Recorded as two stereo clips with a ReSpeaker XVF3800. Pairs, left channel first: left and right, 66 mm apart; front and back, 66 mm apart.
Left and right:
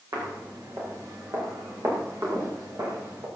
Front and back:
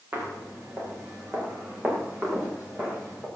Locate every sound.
0.1 s footsteps: 120° right, 7.5 m; by 3.3 s 110° right, 8 m